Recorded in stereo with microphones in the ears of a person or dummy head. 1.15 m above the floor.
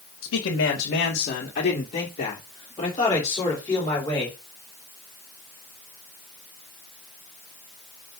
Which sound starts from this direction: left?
A man speaking, at 0.2 s.